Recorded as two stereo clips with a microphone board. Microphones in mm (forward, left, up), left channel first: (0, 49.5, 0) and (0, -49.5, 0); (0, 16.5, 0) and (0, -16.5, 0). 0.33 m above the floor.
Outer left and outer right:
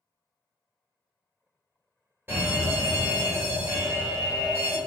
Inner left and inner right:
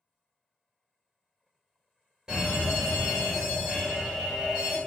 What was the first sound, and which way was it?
A fire alarm, 20° right (ahead or behind).